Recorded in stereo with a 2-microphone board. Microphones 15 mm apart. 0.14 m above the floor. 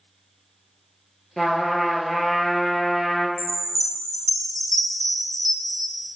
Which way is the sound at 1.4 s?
5° right (ahead or behind).